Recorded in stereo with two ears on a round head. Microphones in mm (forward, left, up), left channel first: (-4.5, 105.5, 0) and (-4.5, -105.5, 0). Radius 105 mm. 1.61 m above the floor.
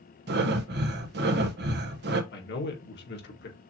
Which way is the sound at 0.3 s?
50° right (ahead or behind).